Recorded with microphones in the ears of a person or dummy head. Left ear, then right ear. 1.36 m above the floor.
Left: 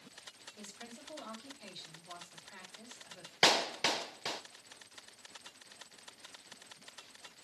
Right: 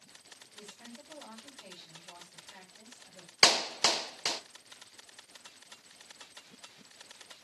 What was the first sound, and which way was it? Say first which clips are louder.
A woman speaking: right 1 dB; 40° left (ahead or behind).